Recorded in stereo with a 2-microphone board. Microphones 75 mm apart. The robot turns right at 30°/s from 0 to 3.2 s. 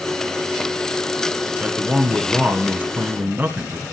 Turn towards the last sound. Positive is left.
turn(degrees=-25)  # may be behind; listen again after turning